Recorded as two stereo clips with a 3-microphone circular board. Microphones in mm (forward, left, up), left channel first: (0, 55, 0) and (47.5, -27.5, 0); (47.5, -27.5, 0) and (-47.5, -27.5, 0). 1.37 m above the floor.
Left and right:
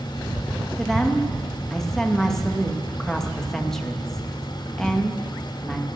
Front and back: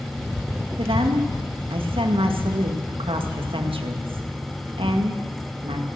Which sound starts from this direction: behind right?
A woman speaking, at 0.8 s.